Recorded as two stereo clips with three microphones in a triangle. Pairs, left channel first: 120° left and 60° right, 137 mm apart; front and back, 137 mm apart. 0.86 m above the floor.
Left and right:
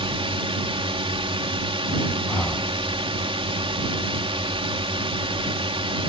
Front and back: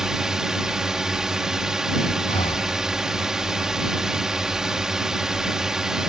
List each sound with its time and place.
0.0 s a drone: 95° right
2.3 s breathing: 40° left